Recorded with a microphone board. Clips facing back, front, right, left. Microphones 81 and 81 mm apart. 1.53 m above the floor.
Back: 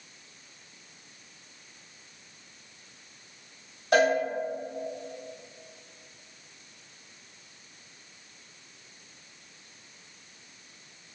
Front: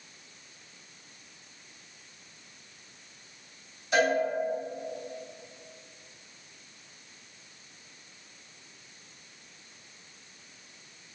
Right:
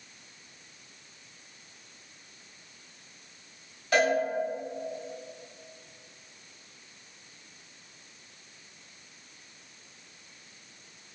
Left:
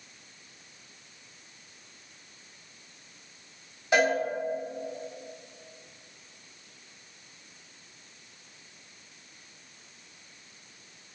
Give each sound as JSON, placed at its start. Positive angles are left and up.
{"t": 3.9, "sound": "a cowbell", "azimuth_deg": 160, "distance_m": 1.8}